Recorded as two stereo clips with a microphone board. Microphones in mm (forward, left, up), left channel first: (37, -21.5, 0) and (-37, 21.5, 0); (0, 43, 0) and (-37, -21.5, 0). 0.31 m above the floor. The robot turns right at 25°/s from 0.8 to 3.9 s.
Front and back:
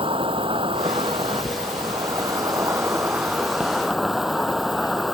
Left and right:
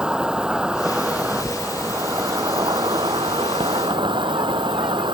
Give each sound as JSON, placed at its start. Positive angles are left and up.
{"t": 0.0, "sound": "an insect", "azimuth_deg": 160}